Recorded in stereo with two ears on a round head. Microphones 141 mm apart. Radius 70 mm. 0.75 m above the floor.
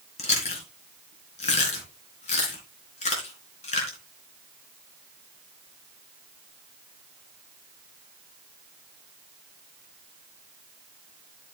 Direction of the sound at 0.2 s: 45° left (ahead or behind).